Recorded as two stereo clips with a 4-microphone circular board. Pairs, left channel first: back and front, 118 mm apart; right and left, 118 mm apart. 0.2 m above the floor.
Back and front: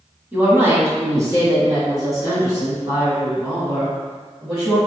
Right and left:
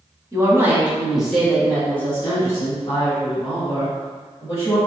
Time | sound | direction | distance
0.3 | a woman speaking | 60° left | 1.3 m